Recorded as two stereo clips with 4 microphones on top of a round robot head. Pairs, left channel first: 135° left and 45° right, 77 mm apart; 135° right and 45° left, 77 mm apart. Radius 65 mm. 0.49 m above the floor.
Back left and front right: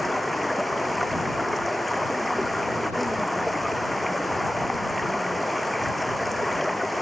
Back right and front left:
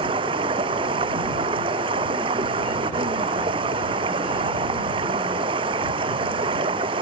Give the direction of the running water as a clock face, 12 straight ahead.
11 o'clock.